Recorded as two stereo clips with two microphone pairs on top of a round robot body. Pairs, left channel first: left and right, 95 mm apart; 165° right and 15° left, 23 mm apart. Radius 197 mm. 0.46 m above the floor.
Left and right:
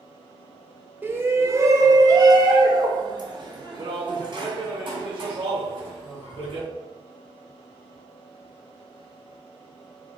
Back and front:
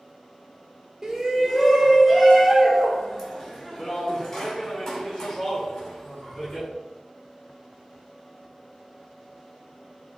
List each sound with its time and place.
1.0 s a shout: 65° right, 1.0 m; by 6.7 s 125° right, 3.5 m